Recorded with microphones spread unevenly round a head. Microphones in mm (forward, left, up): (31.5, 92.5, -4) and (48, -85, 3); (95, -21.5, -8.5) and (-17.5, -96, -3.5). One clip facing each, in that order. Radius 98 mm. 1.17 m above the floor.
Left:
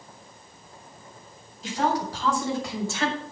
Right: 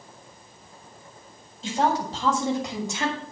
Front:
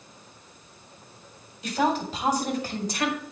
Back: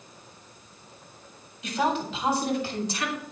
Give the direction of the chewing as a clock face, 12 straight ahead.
No chewing in this recording.